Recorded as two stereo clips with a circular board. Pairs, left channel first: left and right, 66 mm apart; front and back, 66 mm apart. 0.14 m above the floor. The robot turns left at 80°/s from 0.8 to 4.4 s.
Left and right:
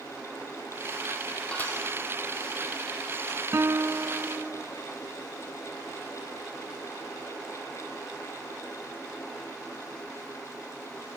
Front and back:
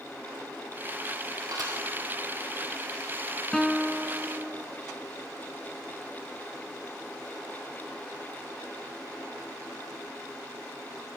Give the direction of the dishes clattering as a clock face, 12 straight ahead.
7 o'clock.